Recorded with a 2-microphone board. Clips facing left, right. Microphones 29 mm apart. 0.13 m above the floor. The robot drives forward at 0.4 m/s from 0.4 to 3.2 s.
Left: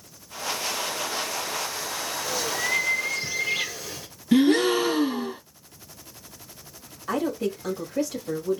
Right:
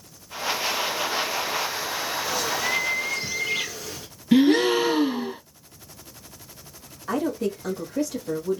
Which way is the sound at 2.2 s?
5° right (ahead or behind).